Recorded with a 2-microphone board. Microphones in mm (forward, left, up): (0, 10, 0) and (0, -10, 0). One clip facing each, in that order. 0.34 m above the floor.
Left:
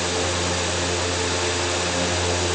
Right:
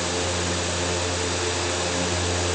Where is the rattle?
No rattle in this recording.